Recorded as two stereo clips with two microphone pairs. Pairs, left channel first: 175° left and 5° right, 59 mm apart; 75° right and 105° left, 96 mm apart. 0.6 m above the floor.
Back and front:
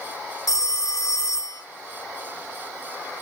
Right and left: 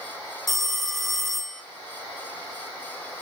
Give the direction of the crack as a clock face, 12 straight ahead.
No crack in this recording.